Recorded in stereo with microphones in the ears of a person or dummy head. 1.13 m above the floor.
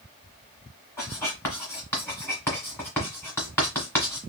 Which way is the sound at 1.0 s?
10° left (ahead or behind).